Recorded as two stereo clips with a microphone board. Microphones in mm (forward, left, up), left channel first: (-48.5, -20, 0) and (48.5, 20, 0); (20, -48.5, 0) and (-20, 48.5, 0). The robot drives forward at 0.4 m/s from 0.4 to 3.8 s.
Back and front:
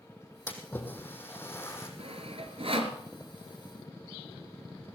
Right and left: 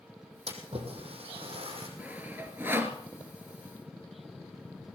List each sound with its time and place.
0.5 s a splash: 130° left, 3.5 m; by 1.9 s 135° left, 4 m
2.0 s sawing: 40° left, 2.5 m; by 3.0 s 45° left, 2 m